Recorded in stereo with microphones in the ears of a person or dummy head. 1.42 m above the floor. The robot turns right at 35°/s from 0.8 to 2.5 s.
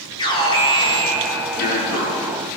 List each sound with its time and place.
0.2 s an alarm: 25° left, 5.5 m; by 2.4 s 80° left, 5.5 m